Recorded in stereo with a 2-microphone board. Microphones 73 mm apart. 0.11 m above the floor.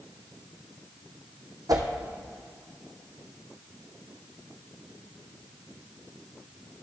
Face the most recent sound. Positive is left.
turn(degrees=-60)  # may be behind; listen again after turning